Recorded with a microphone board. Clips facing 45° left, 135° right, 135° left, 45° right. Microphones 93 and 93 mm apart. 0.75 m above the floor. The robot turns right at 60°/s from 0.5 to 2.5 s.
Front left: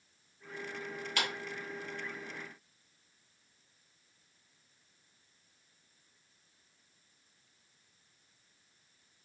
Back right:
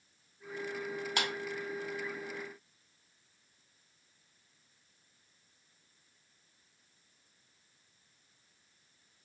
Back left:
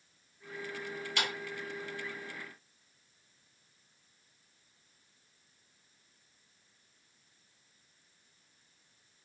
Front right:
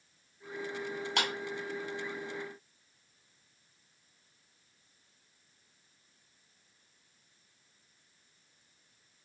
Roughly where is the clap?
Right.